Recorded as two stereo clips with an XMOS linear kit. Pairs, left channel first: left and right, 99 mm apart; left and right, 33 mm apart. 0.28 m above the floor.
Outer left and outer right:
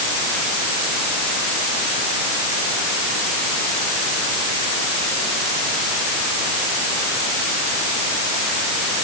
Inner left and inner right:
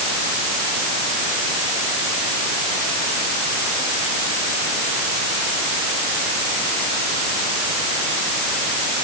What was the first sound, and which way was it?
Only background noise.